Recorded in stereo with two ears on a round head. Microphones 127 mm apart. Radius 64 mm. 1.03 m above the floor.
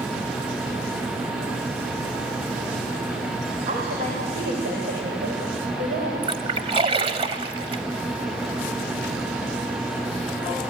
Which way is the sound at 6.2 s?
40° right (ahead or behind).